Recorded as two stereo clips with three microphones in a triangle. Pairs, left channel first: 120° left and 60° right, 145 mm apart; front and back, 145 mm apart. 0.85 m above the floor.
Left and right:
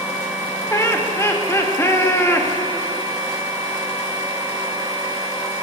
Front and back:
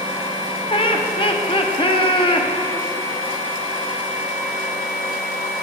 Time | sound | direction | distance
0.7 | laughter | 50° left | 1.0 m